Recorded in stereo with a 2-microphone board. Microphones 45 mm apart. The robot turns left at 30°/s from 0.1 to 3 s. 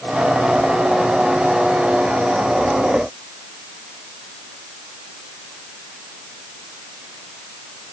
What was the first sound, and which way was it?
Only background noise.